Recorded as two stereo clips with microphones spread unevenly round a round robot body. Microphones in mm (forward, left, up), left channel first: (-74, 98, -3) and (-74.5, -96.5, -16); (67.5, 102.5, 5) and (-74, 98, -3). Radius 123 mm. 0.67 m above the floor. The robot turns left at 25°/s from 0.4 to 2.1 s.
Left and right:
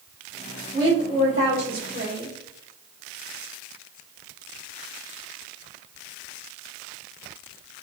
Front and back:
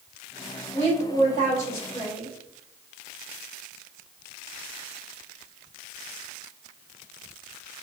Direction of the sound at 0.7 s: 55° right.